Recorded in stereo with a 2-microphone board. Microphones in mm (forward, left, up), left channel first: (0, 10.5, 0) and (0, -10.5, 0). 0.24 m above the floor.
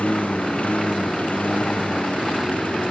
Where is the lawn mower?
90° left.